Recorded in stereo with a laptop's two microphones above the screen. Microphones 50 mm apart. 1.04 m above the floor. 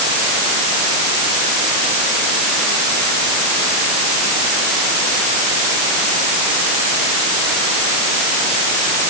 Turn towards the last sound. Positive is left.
No sound to turn to.